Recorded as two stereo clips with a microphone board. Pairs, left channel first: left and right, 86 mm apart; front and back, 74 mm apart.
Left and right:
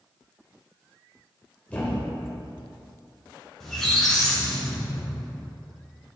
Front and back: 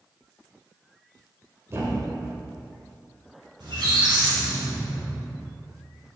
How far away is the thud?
About 1.7 m.